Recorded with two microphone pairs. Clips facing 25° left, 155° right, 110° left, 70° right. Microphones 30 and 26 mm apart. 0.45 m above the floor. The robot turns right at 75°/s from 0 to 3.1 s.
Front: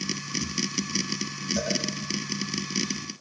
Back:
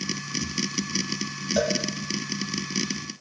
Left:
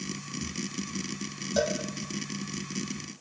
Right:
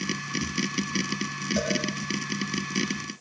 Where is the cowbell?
175° right, 6.5 m; by 1.8 s 160° right, 6.5 m.